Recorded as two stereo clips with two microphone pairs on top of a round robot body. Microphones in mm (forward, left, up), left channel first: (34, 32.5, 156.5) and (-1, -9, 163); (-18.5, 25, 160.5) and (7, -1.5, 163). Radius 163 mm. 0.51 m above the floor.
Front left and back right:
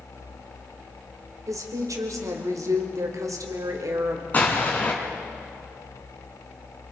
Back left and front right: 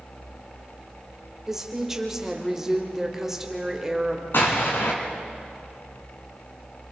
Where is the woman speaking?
125° right, 2.5 m.